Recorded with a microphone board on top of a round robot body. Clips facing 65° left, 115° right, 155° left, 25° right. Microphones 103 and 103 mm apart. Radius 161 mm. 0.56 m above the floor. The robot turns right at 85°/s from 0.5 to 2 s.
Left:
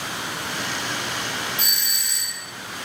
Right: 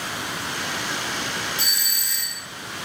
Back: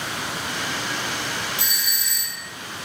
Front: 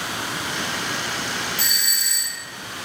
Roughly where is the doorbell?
Behind right.